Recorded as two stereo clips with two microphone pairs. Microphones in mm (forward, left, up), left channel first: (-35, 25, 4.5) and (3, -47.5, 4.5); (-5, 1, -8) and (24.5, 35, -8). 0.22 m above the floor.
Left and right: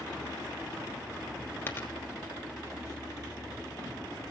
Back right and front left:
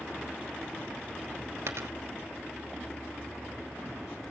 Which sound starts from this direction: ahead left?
A dropped coin, at 1.7 s.